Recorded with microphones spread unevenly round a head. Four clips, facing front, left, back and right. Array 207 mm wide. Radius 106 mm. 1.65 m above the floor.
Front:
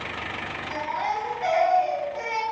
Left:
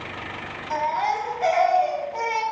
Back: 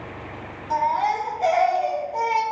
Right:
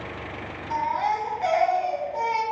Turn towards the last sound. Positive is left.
turn(degrees=140)